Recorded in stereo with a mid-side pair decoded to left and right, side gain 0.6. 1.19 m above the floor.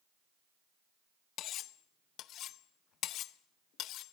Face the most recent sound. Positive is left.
turn(degrees=60)